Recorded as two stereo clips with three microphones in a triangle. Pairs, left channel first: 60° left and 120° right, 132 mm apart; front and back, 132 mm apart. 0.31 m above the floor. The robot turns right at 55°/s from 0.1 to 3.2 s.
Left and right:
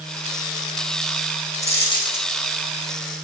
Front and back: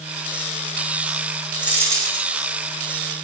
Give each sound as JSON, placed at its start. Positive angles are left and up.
{"t": 1.6, "sound": "a dropped coin", "azimuth_deg": 95, "distance_m": 3.5}